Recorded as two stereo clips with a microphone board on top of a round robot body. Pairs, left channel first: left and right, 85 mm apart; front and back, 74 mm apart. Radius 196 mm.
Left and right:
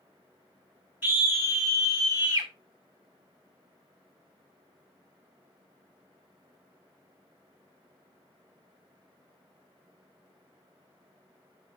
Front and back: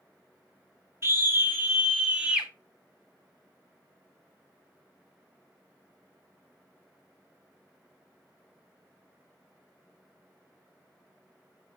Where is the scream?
145° right, 1.9 m; by 2.5 s 100° right, 2 m.